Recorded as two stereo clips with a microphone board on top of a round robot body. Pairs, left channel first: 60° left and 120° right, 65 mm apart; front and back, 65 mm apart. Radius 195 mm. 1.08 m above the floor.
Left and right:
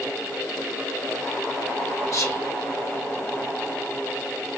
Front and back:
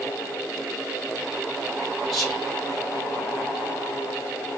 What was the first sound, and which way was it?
Whispering, 90° left.